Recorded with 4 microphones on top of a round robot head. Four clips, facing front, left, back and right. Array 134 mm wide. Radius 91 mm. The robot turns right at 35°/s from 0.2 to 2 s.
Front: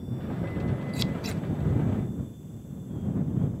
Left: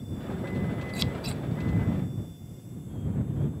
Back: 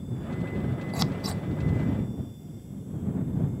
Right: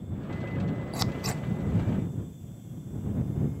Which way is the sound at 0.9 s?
145° right.